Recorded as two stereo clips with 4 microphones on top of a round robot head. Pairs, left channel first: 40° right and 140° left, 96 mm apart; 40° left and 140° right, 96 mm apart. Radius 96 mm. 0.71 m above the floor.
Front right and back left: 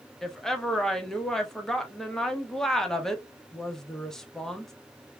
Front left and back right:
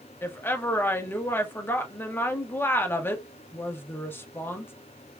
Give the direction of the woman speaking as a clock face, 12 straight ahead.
11 o'clock.